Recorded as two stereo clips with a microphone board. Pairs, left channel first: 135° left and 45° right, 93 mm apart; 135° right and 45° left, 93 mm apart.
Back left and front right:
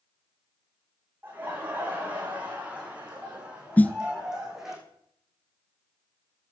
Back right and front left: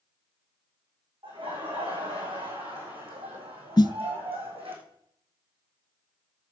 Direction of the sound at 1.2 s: 25° left.